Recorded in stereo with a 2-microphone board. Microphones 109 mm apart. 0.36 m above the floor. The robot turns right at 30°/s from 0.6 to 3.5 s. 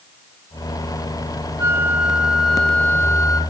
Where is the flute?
20° right, 3 m; by 3.4 s 35° left, 3 m.